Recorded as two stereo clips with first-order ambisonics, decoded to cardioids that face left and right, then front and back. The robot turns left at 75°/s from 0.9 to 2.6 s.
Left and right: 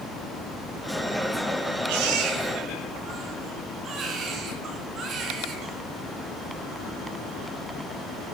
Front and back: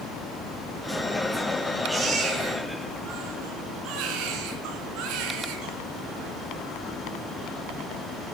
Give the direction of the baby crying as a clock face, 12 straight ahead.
3 o'clock.